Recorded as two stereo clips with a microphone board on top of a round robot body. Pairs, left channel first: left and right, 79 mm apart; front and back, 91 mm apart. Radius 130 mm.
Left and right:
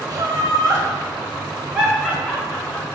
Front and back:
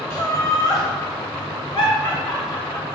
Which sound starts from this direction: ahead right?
Laughter, at 0.1 s.